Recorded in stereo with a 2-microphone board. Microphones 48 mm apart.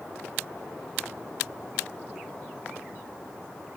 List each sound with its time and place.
Only background noise.